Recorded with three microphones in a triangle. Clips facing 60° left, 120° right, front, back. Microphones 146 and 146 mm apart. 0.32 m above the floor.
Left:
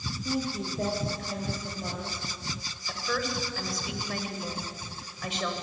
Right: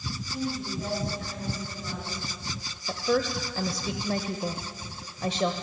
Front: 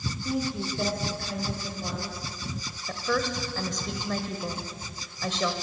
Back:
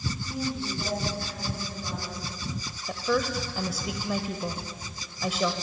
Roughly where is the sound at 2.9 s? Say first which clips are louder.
Right 6 dB, back 2 dB; right.